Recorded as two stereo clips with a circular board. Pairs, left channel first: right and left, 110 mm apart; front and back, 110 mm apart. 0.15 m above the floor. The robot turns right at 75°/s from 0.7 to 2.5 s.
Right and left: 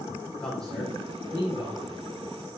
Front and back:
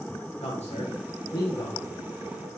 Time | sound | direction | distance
0.4 | a man speaking | 5° right | 7 m